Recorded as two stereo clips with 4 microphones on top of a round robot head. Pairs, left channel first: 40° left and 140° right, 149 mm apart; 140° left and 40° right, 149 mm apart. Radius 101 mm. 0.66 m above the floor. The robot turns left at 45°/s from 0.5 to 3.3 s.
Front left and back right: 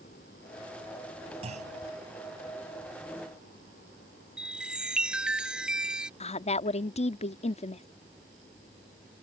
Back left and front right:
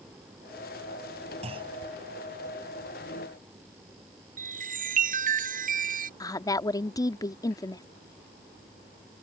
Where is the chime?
55° right.